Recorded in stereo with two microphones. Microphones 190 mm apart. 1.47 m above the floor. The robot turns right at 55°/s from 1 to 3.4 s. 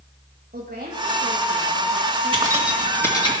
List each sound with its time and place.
0.5 s a woman speaking: 50° right, 2.5 m; by 3.3 s 80° left, 2.5 m
2.3 s keys jangling: 25° right (ahead or behind), 2 m; by 3.3 s 30° left (ahead or behind), 2 m